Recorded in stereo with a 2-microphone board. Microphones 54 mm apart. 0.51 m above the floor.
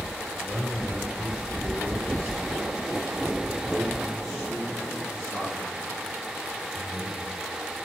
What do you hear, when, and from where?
0.3 s a man speaking: 25° right (ahead or behind), 1.8 m; by 7.5 s 5° left (ahead or behind), 6 m